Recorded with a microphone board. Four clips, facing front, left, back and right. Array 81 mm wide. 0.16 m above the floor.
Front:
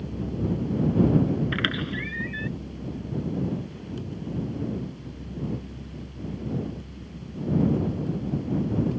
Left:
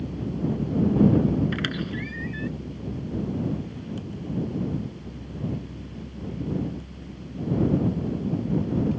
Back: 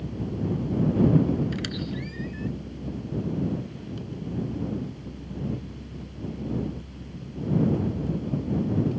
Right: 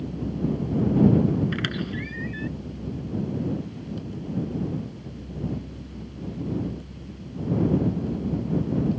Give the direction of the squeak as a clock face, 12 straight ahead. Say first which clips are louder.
Even, front 3 dB; 12 o'clock.